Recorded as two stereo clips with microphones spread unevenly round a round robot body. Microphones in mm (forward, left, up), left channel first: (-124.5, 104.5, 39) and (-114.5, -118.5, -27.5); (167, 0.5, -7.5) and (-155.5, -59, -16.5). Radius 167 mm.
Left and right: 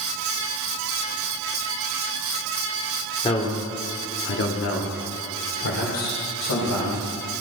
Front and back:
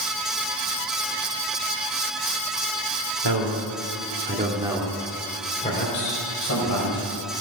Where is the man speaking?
165° left, 2.5 m; by 7.1 s 60° left, 4.5 m.